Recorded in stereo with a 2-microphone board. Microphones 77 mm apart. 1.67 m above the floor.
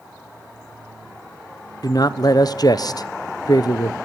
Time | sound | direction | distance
1.8 | a man speaking | 55° left (ahead or behind) | 0.7 m